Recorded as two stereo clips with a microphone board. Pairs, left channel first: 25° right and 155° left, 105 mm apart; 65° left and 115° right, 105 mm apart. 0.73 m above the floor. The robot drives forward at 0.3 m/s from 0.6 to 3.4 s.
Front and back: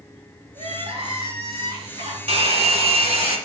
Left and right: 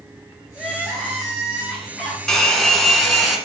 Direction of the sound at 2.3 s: 150° left.